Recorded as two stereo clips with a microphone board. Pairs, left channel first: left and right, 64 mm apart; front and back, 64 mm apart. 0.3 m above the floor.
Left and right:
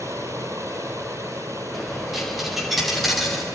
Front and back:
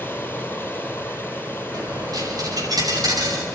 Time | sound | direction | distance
0.0 | running water | 60° right | 2.5 m
1.7 | a dropped coin | 175° right | 7.5 m